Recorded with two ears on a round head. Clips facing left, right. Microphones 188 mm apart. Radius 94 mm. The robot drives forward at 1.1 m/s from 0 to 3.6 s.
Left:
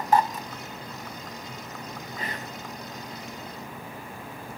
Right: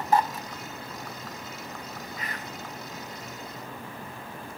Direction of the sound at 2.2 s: 30° left (ahead or behind).